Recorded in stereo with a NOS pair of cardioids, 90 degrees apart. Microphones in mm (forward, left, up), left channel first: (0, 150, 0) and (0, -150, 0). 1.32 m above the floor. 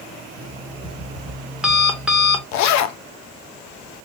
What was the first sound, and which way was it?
An alarm clock, 5° right.